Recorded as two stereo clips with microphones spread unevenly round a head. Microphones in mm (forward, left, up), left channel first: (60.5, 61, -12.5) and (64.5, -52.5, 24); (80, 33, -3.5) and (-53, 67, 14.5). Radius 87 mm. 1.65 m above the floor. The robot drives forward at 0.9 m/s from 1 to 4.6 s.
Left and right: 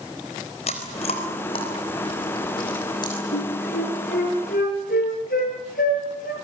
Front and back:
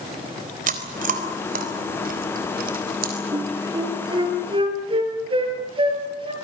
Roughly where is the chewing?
Behind left.